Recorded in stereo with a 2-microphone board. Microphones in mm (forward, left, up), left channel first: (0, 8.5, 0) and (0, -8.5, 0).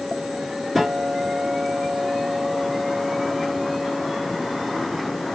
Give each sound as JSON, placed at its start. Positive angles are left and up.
{"t": 0.8, "sound": "a guitar", "side_deg": -10, "distance_m": 2.0}